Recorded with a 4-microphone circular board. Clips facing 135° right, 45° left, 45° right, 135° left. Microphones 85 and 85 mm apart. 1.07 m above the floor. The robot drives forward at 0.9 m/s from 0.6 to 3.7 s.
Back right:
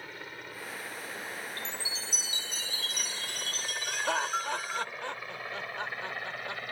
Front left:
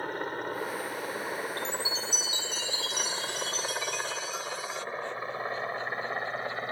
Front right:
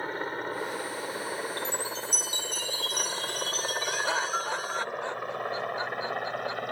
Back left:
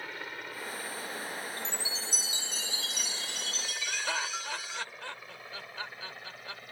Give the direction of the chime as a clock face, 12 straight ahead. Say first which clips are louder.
Front left 7 dB, front right 6 dB; 3 o'clock.